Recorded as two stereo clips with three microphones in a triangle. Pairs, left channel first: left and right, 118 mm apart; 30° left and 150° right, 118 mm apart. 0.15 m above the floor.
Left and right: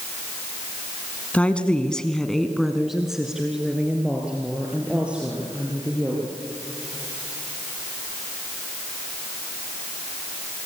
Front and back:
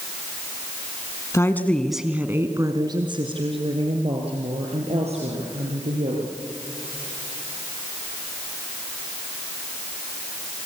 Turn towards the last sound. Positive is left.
turn(degrees=-170)